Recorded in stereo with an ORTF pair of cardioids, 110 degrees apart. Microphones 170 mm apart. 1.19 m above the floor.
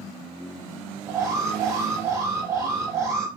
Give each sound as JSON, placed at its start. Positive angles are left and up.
{"t": 1.1, "sound": "an alarm", "azimuth_deg": -15, "distance_m": 5.5}